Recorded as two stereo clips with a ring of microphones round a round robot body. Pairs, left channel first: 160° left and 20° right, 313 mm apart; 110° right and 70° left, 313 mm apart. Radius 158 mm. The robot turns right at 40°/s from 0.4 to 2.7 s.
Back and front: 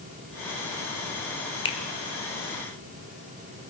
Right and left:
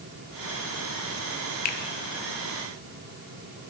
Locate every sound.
1.6 s a finger snap: 145° right, 0.8 m; by 1.8 s 135° right, 0.8 m